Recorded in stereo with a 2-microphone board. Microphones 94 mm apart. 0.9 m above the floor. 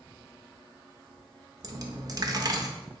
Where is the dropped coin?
40° right (ahead or behind), 0.6 m.